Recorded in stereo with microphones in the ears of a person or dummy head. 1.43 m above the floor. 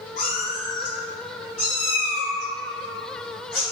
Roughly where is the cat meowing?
Left.